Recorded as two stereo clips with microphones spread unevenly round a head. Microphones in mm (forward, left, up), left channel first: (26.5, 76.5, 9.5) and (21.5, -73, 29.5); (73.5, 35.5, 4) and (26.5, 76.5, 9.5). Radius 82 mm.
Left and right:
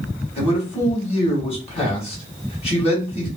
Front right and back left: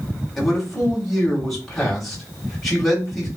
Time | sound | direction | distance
0.4 | a man speaking | 45° left | 1.7 m